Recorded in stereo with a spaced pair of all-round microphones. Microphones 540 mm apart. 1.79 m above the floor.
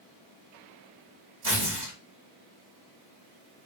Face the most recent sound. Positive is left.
turn(degrees=-45)  # may be behind; listen again after turning